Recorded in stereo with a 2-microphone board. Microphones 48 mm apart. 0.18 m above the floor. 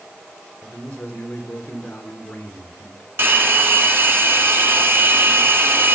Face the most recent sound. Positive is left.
turn(degrees=-50)  # may be behind; listen again after turning